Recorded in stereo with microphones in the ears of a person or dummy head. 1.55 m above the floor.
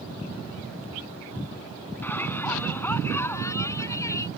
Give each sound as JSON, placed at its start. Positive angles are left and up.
{"t": 2.0, "sound": "a shout", "side_deg": 15}